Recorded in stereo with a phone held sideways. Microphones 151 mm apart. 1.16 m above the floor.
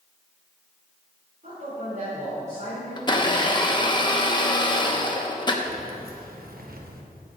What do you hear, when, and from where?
1.4 s a man speaking: 55° right (ahead or behind), 3 m
3.0 s a blender: 30° left (ahead or behind), 0.9 m
5.6 s keys jangling: 80° right, 0.9 m